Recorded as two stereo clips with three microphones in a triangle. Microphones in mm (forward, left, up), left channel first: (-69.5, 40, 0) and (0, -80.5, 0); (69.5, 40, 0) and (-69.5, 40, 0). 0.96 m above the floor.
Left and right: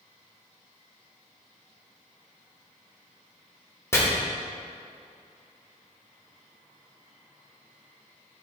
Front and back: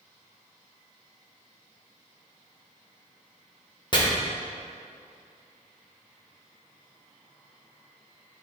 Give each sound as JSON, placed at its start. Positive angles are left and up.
{"t": 3.9, "sound": "chopping", "azimuth_deg": 55, "distance_m": 1.3}